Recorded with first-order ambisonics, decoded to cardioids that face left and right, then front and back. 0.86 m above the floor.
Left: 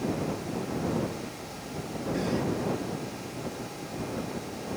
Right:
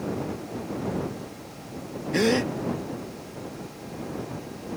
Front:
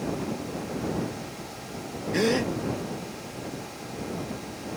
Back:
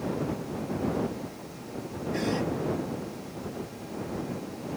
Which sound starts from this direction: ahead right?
A gasp, at 2.1 s.